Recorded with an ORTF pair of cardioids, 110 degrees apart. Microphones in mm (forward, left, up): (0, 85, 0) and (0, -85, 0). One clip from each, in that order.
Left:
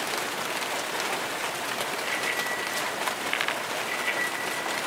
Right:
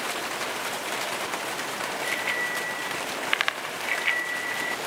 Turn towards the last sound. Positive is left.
turn(degrees=-70)